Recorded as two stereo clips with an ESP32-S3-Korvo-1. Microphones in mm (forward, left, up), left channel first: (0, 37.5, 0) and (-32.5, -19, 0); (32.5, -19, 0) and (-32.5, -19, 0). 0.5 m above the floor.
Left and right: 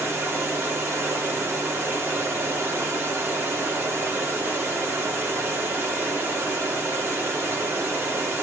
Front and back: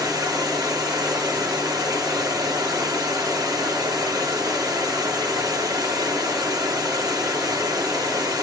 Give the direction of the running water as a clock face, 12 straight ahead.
6 o'clock.